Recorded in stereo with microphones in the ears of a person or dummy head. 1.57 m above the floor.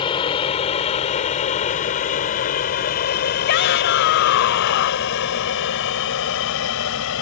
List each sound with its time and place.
0.0 s an aircraft: 20° left (ahead or behind); by 7.2 s 65° left (ahead or behind)
3.5 s a shout: 55° left (ahead or behind)